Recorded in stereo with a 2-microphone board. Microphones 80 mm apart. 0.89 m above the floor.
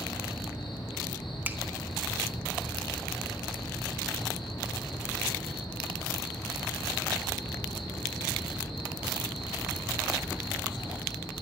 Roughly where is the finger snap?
Right.